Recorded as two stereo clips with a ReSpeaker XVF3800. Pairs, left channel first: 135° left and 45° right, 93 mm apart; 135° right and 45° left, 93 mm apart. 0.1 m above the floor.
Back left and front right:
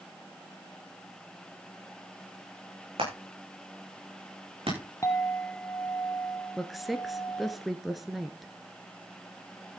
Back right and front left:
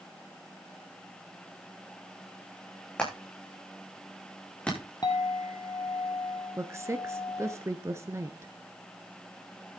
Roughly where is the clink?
Behind.